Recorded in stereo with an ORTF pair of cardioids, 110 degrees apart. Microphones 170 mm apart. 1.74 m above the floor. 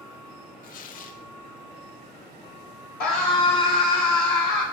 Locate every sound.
0.6 s tearing paper: 60° left, 0.5 m
3.0 s a scream: 65° left, 2.5 m